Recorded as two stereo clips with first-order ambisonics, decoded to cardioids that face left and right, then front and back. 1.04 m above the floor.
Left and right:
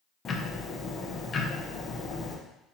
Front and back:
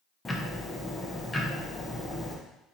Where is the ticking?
70° left, 0.6 m.